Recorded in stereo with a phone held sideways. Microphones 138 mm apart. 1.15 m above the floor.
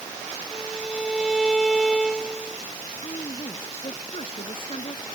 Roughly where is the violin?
Centre.